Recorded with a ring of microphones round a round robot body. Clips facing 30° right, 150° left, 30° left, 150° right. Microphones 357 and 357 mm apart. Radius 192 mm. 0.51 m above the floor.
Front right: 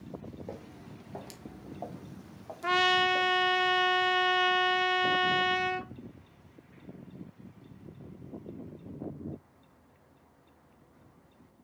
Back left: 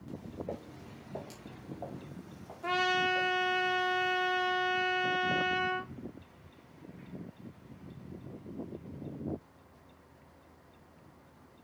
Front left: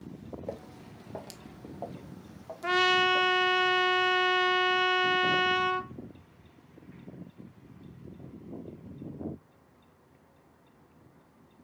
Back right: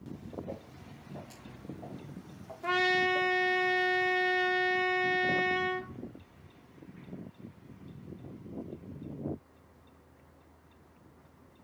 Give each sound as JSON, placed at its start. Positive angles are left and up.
{"t": 0.5, "sound": "footsteps", "azimuth_deg": 55, "distance_m": 1.6}
{"t": 2.6, "sound": "a trumpet", "azimuth_deg": -5, "distance_m": 1.2}